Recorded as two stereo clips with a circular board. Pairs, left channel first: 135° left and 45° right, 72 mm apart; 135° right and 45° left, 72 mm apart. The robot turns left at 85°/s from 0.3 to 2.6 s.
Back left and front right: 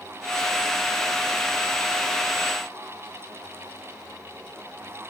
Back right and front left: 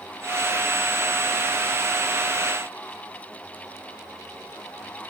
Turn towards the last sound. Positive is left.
No sound to turn to.